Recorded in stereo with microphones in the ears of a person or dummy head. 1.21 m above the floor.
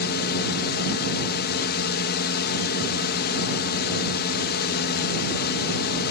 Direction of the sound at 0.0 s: 55° left (ahead or behind).